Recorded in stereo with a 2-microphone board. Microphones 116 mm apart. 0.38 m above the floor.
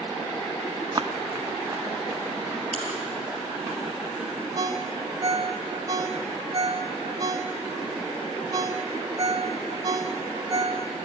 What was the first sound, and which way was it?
Running footsteps, 35° right (ahead or behind).